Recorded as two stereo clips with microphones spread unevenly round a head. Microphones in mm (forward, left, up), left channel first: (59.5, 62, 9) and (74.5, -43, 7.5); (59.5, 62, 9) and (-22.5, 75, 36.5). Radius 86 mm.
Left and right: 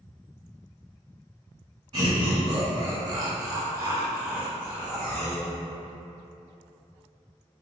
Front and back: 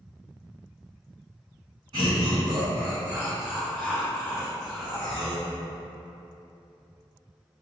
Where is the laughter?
135° right, 1.0 m; by 5.5 s 5° left, 1.2 m.